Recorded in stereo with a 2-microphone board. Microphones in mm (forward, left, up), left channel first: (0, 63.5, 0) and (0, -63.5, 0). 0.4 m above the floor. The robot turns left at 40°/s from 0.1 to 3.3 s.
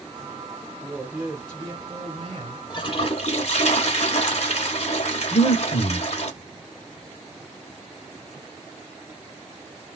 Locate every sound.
0.8 s a woman speaking: 20° right, 1.0 m; by 2.6 s 90° right, 1.0 m
2.7 s a toilet flushing: 40° left (ahead or behind), 0.8 m; by 6.3 s 55° left (ahead or behind), 0.8 m
5.3 s breathing: 50° left (ahead or behind), 0.7 m